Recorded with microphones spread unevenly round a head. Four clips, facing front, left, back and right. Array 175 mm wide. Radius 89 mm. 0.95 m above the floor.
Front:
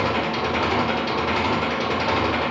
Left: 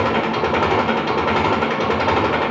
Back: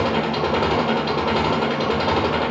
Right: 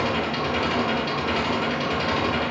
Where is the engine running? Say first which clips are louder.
Left 6 dB, back 2 dB; 115° left, 1.8 m.